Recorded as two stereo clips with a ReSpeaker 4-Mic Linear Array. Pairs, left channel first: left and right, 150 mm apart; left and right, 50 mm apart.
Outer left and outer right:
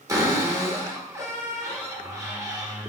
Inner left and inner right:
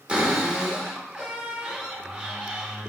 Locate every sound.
0.1 s a cupboard door: 25° right (ahead or behind), 1.2 m